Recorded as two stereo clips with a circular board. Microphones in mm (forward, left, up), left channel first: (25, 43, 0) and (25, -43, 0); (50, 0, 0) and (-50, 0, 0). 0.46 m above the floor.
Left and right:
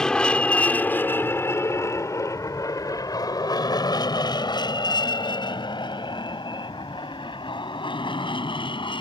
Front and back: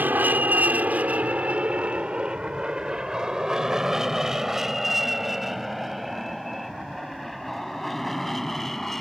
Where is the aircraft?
155° left; by 9.0 s 85° left.